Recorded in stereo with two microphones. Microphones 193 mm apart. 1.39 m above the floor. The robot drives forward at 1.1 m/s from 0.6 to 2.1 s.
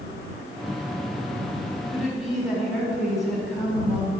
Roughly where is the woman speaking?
Centre.